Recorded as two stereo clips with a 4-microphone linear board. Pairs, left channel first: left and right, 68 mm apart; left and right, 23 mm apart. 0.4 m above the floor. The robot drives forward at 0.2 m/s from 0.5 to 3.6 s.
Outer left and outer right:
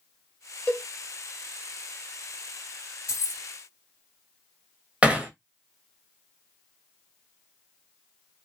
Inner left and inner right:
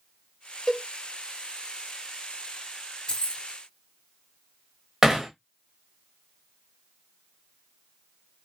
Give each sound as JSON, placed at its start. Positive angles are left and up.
{"t": 0.7, "sound": "a cowbell", "side_deg": 15, "distance_m": 1.4}
{"t": 3.1, "sound": "keys jangling", "side_deg": 45, "distance_m": 0.8}
{"t": 5.0, "sound": "hammering", "side_deg": -20, "distance_m": 0.7}